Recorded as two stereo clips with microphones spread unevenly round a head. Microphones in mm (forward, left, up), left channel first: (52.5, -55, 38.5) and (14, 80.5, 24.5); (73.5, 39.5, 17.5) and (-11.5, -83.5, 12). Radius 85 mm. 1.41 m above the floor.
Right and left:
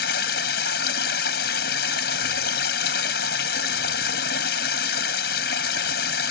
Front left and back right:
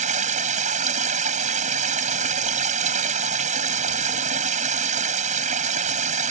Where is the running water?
90° right.